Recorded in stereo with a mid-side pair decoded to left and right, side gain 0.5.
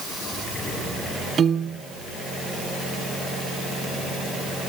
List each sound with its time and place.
1.4 s a piano: 35° right, 1.3 m